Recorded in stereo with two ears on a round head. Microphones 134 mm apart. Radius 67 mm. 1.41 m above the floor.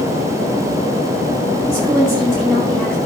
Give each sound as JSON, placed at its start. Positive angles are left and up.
{"t": 1.7, "sound": "a woman speaking", "side_deg": 5, "distance_m": 2.0}